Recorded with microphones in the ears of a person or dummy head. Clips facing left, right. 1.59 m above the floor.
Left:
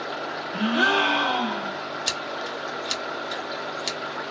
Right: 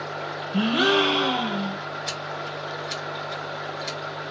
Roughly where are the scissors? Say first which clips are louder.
Left 1 dB; left.